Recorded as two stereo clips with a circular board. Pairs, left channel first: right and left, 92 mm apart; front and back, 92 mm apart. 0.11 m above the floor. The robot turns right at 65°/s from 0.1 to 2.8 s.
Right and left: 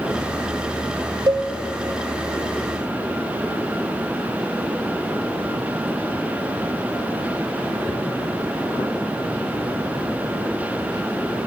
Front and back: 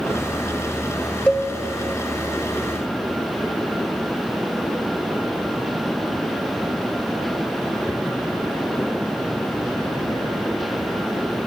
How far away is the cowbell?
About 0.8 m.